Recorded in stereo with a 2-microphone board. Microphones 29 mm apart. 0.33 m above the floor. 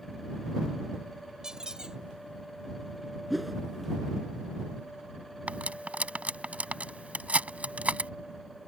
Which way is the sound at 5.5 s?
65° right (ahead or behind).